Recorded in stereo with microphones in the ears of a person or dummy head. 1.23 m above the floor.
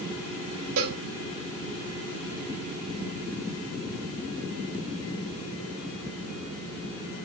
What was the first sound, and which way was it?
A cowbell, 75° right (ahead or behind).